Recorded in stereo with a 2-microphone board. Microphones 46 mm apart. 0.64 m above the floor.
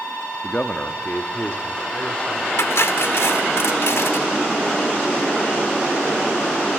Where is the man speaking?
25° left (ahead or behind), 0.7 m.